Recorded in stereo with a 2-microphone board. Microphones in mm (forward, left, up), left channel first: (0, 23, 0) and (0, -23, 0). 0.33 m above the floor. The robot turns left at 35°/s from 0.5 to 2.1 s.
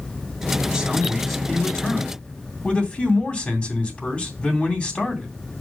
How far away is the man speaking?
About 3 m.